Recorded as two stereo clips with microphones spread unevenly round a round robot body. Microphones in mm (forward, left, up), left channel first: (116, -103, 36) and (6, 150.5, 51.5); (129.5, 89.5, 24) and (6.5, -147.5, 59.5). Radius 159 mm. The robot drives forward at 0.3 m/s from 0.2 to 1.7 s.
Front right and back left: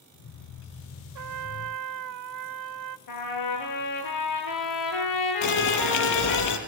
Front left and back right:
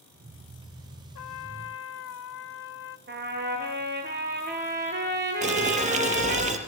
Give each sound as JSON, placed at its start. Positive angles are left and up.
{"t": 1.1, "sound": "a trumpet", "azimuth_deg": 90, "distance_m": 0.8}
{"t": 3.1, "sound": "a trumpet", "azimuth_deg": -65, "distance_m": 8.5}
{"t": 5.4, "sound": "boiling", "azimuth_deg": -55, "distance_m": 4.5}